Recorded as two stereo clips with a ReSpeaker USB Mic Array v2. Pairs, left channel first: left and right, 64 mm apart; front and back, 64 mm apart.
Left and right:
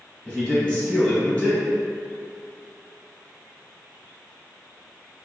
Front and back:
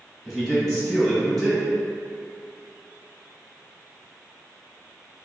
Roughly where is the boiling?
No boiling in this recording.